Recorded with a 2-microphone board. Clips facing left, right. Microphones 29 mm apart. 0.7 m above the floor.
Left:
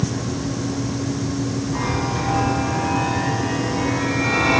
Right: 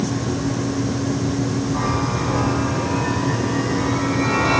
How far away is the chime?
About 9.5 m.